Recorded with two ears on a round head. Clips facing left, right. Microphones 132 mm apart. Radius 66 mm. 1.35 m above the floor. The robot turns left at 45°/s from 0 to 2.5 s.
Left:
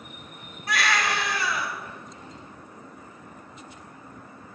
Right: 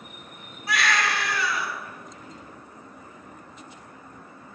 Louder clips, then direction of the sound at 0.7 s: Even; 175° right.